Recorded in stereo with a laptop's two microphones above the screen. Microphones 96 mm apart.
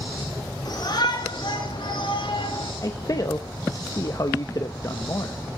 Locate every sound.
0.7 s a shout: 50° left (ahead or behind), 5.5 m; by 2.7 s 65° left (ahead or behind), 7 m
2.8 s a man speaking: 40° left (ahead or behind), 0.6 m